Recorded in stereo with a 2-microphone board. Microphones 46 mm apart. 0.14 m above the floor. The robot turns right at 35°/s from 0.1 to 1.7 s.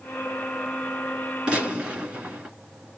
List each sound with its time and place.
1.5 s a gunshot: 20° right (ahead or behind), 1.7 m